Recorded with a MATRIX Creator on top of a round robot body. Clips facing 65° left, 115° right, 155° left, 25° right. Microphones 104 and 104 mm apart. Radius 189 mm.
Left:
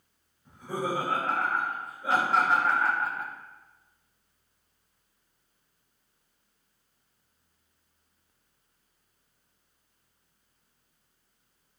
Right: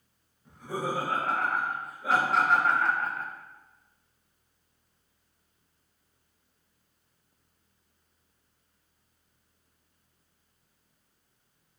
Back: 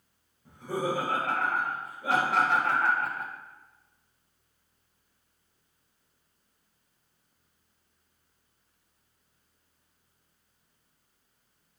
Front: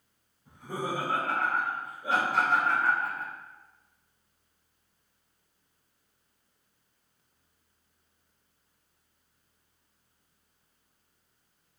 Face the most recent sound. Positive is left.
turn(degrees=145)